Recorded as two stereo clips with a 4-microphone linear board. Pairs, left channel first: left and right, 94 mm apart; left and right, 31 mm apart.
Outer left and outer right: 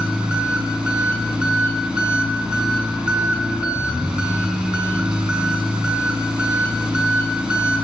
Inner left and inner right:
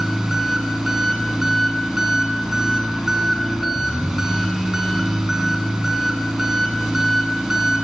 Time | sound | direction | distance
0.0 | an engine running | 10° right (ahead or behind) | 1.2 m